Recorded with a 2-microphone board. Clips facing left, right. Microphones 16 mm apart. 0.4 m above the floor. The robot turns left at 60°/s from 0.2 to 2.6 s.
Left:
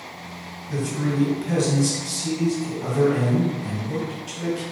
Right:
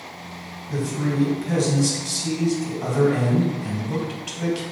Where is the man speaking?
65° left, 2.5 m; by 4.6 s 50° right, 2.5 m.